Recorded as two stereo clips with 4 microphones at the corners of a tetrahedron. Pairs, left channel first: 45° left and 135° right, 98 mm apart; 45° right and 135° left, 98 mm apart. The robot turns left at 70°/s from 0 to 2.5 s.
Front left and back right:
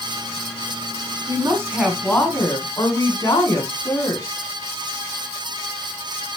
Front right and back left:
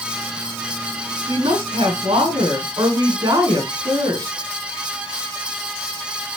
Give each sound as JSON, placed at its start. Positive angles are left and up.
{"t": 1.3, "sound": "a woman speaking", "azimuth_deg": 180, "distance_m": 3.0}